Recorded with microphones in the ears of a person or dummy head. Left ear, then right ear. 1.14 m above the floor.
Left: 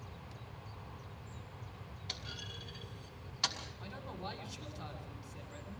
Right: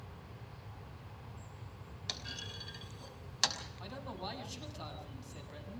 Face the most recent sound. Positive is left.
turn(degrees=-60)  # may be behind; listen again after turning